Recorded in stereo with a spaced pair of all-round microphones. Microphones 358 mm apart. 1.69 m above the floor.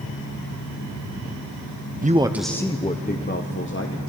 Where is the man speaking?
25° right (ahead or behind), 0.5 m; by 4.1 s 35° left (ahead or behind), 1.4 m.